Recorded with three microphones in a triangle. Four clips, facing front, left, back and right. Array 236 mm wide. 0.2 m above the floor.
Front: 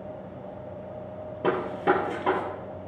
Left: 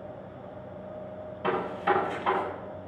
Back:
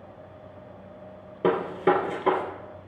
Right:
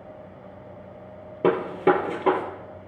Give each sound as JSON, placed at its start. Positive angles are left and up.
{"t": 1.4, "sound": "a gunshot", "azimuth_deg": -95, "distance_m": 4.0}